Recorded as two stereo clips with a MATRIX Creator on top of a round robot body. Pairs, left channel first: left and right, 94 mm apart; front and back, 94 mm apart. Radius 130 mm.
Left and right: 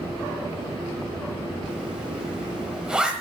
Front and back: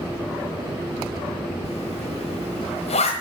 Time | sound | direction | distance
1.6 | a zipper | 10° right | 1.2 m